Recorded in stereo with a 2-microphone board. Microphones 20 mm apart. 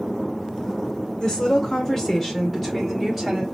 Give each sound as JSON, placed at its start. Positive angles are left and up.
{"t": 1.2, "sound": "a woman speaking", "side_deg": 35, "distance_m": 1.0}